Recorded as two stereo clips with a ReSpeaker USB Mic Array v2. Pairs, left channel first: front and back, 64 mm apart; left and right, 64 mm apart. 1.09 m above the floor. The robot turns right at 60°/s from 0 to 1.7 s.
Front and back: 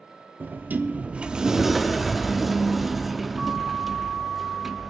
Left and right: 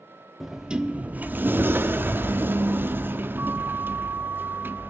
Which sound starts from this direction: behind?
A sliding door, at 0.4 s.